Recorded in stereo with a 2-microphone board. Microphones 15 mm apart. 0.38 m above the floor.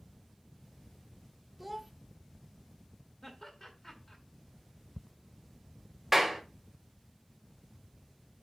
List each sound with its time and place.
1.6 s a child speaking: 5° right (ahead or behind), 0.5 m
3.2 s laughter: 25° left (ahead or behind), 1.5 m
6.1 s a clap: 10° right (ahead or behind), 1.3 m